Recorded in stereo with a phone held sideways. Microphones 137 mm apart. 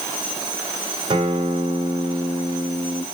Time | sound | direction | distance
1.1 | a guitar | 40° right (ahead or behind) | 3 m